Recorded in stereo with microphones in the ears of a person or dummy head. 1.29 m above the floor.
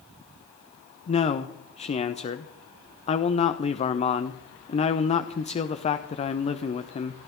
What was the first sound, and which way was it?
A man speaking, 30° left (ahead or behind).